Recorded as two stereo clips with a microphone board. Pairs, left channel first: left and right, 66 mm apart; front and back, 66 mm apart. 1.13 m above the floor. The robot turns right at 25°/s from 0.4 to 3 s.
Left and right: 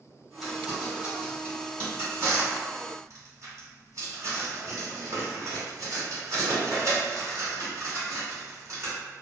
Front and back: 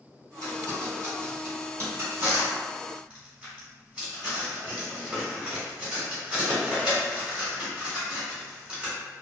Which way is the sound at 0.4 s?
175° right.